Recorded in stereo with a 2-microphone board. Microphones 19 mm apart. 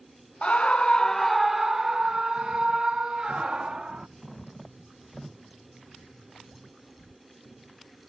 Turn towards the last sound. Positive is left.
turn(degrees=-55)  # may be behind; listen again after turning